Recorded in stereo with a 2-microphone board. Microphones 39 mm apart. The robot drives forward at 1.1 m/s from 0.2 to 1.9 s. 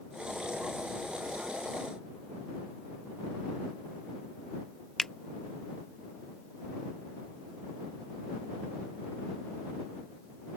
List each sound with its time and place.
5.0 s a finger snap: 10° left (ahead or behind)